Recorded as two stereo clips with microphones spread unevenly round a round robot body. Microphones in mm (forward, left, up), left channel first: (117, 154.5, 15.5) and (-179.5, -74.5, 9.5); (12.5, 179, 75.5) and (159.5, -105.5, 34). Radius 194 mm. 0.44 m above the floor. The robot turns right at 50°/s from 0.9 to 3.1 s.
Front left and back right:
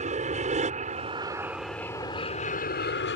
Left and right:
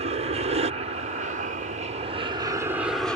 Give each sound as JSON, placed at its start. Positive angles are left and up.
{"t": 0.0, "sound": "an aircraft", "azimuth_deg": -90}